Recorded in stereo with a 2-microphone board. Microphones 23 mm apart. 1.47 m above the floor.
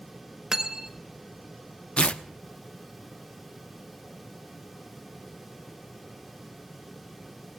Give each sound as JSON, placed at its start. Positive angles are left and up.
{"t": 0.5, "sound": "cutlery clinking", "side_deg": -25, "distance_m": 0.9}
{"t": 2.0, "sound": "tearing paper", "side_deg": 65, "distance_m": 0.6}